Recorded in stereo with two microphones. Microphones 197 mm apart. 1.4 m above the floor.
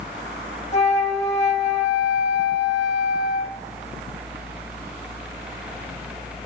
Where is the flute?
30° left (ahead or behind), 0.9 m.